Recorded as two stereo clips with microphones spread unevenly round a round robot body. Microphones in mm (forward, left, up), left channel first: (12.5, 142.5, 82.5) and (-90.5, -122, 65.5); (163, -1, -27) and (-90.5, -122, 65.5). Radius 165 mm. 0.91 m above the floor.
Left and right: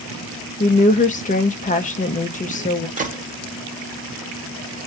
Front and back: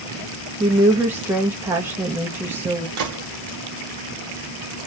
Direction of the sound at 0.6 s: 85° left.